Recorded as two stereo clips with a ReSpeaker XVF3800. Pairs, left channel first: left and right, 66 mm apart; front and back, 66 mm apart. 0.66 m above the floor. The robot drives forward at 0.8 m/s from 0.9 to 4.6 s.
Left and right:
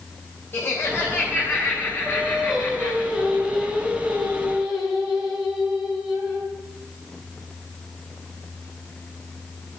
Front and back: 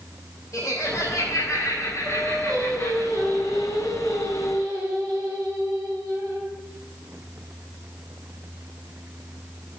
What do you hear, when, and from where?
0.5 s laughter: 30° left, 3.5 m; by 3.0 s 55° left, 2 m
2.0 s singing: 170° right, 3 m; by 6.5 s 175° right, 4.5 m